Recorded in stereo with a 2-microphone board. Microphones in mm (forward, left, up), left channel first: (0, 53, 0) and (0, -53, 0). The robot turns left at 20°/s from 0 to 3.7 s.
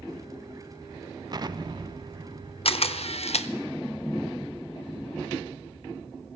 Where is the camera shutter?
65° left (ahead or behind), 0.7 m; by 3.5 s 75° left (ahead or behind), 0.7 m.